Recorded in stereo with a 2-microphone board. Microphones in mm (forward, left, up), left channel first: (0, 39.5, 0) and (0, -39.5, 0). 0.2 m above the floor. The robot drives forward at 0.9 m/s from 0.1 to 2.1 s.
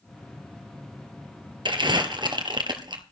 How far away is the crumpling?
About 1.9 m.